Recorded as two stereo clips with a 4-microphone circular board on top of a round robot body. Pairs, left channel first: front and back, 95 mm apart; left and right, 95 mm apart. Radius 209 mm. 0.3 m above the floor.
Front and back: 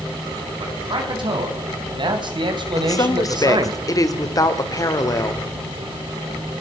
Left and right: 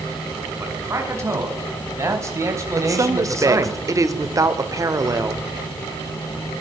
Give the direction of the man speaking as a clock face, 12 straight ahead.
5 o'clock.